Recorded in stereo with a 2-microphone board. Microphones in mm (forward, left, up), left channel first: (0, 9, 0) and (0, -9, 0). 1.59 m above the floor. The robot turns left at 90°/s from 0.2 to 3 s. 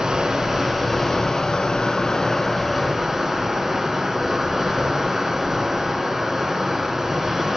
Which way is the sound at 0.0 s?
130° right.